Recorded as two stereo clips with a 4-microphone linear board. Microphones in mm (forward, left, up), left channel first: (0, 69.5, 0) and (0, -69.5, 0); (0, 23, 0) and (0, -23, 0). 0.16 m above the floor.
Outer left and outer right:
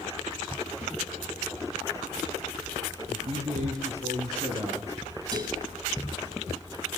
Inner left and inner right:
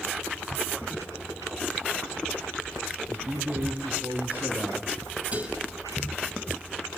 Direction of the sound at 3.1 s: 50° right (ahead or behind).